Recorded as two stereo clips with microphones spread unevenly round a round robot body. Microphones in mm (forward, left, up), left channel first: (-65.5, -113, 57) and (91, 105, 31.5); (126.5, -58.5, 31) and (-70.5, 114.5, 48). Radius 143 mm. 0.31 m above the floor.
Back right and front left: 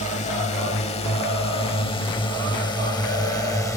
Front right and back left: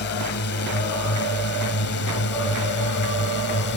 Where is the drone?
65° right; by 3.8 s 45° right.